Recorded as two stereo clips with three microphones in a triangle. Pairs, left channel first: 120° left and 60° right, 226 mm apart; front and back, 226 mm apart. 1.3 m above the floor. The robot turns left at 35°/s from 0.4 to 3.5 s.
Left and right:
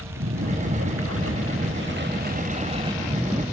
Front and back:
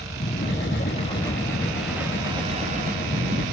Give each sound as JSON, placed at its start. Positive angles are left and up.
{"t": 0.0, "sound": "a lawn mower", "azimuth_deg": -45}